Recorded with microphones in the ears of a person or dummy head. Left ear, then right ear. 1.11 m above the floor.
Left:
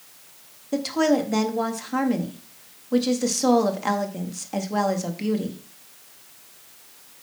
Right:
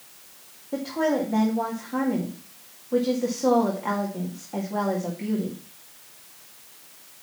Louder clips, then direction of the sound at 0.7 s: Left 3 dB; 75° left (ahead or behind).